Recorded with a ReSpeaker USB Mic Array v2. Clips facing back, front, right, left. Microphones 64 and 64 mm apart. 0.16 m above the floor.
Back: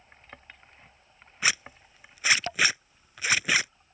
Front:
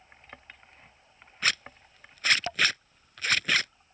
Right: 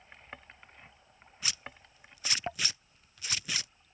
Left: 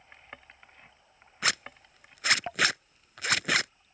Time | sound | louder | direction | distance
1.4 | a zipper | back 1 dB, left 11 dB | 100° left | ?